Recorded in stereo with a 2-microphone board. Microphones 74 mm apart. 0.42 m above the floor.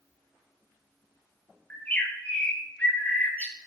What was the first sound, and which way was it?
A bird, 20° left (ahead or behind).